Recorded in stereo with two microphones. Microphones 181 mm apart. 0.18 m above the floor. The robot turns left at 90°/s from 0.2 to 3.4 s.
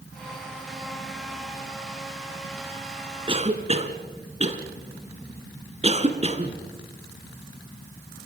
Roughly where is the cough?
Right.